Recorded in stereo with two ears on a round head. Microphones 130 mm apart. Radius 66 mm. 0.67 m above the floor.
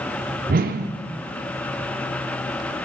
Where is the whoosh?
60° right (ahead or behind), 0.5 m.